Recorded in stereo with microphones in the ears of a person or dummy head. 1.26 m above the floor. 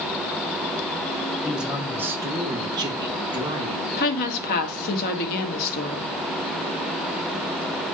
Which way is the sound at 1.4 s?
Centre (ahead or behind).